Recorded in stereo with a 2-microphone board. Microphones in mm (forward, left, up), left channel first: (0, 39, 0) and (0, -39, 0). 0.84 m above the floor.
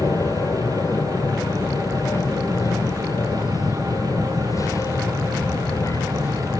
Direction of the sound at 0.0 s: 45° left (ahead or behind).